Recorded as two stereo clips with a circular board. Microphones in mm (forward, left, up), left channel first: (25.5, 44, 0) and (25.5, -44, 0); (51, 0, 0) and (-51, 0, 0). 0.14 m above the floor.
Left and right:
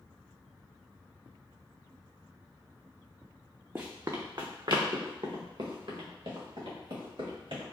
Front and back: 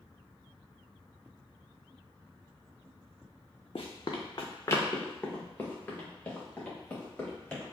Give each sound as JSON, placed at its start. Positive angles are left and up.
{"t": 3.8, "sound": "running footsteps", "azimuth_deg": -25, "distance_m": 0.6}